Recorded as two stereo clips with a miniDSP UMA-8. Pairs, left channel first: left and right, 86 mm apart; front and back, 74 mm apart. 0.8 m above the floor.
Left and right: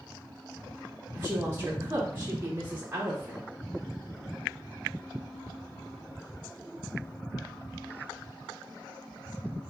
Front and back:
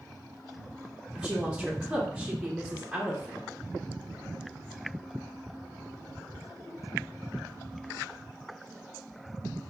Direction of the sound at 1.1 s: 110° right.